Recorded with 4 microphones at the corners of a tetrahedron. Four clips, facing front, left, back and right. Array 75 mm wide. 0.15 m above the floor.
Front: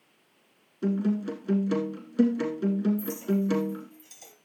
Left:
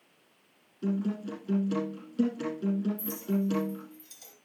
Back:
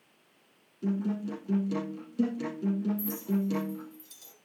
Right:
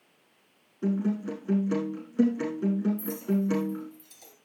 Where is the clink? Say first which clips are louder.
Right 2 dB, front 3 dB; 15° right, 1.7 m.